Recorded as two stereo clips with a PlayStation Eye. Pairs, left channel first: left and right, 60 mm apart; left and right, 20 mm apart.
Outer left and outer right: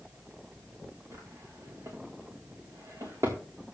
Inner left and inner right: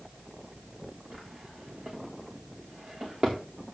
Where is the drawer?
65° right (ahead or behind), 5.5 m.